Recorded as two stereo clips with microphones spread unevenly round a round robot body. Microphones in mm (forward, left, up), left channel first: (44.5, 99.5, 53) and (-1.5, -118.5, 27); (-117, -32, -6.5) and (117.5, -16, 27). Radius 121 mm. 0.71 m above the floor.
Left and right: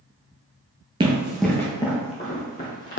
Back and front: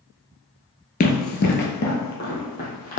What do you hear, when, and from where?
1.0 s running footsteps: 165° right, 0.7 m; by 3.0 s 125° left, 1.6 m